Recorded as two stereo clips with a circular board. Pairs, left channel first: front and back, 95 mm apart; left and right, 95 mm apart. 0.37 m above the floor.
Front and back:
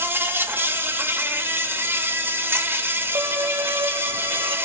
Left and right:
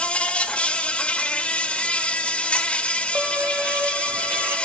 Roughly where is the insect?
Behind left.